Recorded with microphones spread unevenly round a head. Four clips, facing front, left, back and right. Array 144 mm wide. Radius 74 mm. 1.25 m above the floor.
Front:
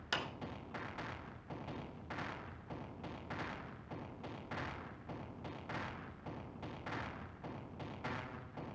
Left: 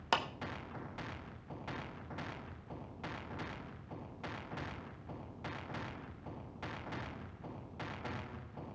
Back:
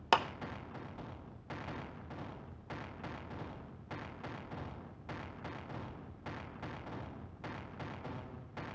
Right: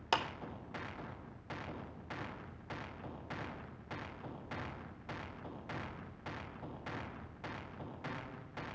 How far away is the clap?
About 0.9 m.